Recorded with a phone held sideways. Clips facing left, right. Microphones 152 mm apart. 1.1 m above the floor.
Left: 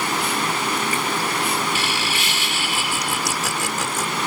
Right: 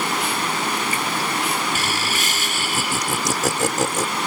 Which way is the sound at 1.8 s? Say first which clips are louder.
Even; 45° right (ahead or behind).